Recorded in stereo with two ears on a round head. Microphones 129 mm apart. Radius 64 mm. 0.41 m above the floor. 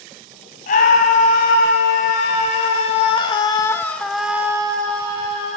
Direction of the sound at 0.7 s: 60° left (ahead or behind).